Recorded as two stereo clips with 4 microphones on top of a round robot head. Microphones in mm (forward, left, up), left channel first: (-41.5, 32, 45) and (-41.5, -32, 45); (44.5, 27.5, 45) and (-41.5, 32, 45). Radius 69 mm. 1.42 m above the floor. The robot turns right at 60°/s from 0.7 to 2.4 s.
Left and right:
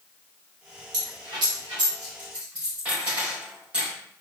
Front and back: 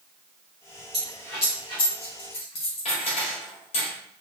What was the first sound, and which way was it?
A dropped coin, 95° right.